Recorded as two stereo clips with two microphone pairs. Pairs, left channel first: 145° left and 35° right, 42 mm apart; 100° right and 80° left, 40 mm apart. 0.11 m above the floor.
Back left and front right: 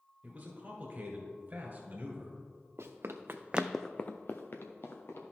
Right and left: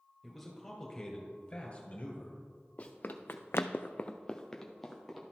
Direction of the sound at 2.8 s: 50° right.